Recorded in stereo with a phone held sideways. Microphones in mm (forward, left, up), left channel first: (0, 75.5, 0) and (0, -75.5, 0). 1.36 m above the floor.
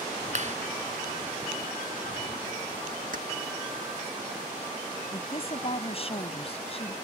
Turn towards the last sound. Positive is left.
turn(degrees=40)  # may be behind; listen again after turning